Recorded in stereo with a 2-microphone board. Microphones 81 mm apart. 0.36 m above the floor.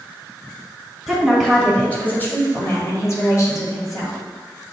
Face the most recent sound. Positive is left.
turn(degrees=55)  # may be behind; listen again after turning